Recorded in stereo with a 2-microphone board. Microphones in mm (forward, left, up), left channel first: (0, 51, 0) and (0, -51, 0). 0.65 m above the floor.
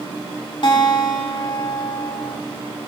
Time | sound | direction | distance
0.6 | a guitar | 55° left (ahead or behind) | 1.9 m